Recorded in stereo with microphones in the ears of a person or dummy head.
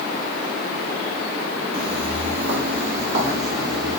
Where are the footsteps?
60° right (ahead or behind), 2.5 m; by 4.0 s 55° right (ahead or behind), 3 m.